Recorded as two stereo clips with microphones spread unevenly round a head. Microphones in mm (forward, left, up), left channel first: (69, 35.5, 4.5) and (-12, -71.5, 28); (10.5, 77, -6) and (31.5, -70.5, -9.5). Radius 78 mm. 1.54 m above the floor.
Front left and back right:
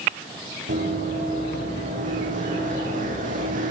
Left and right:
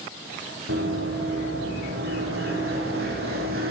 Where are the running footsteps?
105° right, 7.5 m; by 3.7 s 110° right, 5 m.